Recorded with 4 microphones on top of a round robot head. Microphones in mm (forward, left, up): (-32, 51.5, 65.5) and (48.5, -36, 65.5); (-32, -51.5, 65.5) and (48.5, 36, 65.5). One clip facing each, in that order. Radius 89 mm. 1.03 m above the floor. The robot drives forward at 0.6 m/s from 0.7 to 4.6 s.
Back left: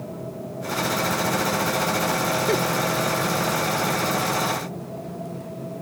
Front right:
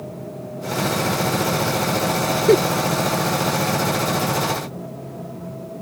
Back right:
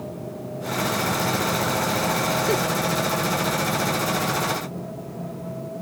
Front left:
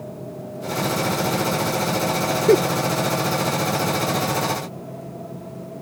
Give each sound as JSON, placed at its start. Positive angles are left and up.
{"t": 2.5, "sound": "a giggle", "azimuth_deg": 5}